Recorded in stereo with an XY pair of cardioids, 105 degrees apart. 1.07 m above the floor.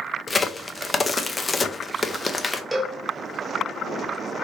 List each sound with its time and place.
0.3 s a crack: 20° left, 0.5 m
2.7 s a cowbell: 10° right, 0.9 m